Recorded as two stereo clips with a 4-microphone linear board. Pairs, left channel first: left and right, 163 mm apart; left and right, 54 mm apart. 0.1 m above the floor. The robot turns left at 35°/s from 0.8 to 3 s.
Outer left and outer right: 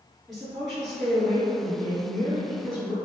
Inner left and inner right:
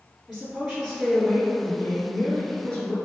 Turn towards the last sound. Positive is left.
turn(degrees=100)